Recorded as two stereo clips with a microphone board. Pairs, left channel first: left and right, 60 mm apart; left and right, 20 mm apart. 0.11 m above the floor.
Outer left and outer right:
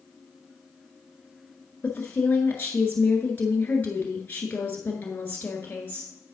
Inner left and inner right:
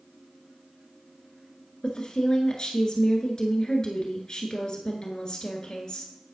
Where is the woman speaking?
30° left (ahead or behind), 1.2 m.